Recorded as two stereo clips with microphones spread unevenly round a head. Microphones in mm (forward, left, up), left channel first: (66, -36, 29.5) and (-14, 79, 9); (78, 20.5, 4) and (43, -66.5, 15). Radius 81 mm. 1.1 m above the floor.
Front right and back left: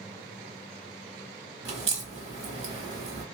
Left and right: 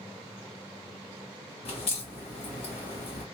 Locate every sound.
1.6 s a crack: 85° left, 1.3 m